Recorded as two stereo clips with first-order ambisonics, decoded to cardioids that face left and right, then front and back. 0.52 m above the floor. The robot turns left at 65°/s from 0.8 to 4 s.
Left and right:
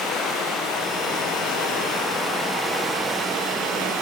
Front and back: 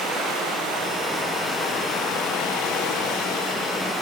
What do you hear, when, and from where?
0.0 s running water: 125° left, 7 m; by 4.0 s 80° right, 7 m